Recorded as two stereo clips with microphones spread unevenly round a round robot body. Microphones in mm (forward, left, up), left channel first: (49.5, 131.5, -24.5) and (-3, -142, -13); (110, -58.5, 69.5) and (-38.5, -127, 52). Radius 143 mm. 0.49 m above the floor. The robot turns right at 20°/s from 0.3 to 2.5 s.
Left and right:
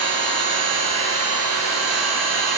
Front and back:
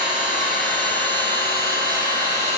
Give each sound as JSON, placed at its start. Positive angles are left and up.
{"t": 0.0, "sound": "an engine running", "azimuth_deg": -155, "distance_m": 7.0}